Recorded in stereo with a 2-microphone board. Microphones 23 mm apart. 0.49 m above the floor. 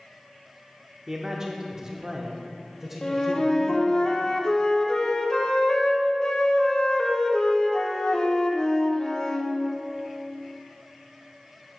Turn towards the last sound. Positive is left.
turn(degrees=30)  # may be behind; listen again after turning